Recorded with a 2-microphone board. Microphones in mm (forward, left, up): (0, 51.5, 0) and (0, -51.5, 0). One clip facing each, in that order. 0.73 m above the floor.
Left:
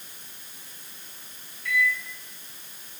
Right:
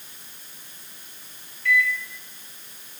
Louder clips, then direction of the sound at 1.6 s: Right 3 dB; 25° left (ahead or behind).